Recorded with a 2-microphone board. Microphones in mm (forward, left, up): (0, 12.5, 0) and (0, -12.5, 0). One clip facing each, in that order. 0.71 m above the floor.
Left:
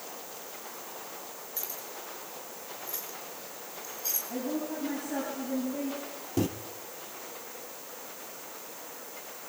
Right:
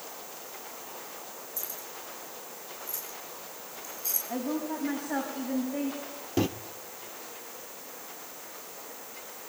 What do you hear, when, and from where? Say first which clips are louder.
1.6 s keys jangling: left 2 dB; 35° left (ahead or behind), 8 m; by 4.2 s 25° left (ahead or behind), 7 m
4.3 s a woman speaking: right 2 dB; 40° right (ahead or behind), 6 m
6.4 s a microwave: right 2 dB; 25° right (ahead or behind), 0.7 m